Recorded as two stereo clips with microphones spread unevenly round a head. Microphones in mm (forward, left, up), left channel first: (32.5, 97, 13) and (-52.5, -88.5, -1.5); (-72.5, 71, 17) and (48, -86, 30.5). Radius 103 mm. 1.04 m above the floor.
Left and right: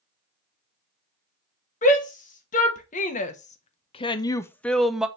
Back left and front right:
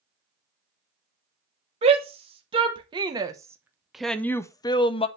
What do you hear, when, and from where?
1.8 s a shout: 10° left, 1.4 m; by 5.1 s 165° left, 0.7 m